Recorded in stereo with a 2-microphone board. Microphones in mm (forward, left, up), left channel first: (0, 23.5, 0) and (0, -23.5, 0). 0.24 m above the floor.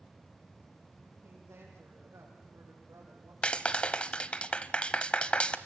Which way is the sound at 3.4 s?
25° left (ahead or behind).